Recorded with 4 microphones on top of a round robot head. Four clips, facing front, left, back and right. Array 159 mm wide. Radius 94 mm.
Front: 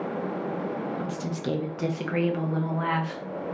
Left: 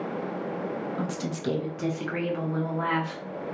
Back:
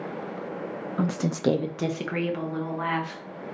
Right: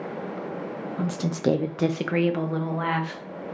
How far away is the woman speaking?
About 0.5 m.